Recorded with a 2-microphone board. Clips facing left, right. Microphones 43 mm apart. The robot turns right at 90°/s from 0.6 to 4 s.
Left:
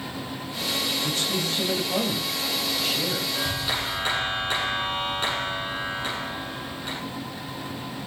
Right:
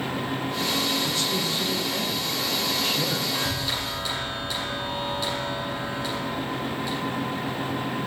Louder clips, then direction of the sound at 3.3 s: Even; 15° right.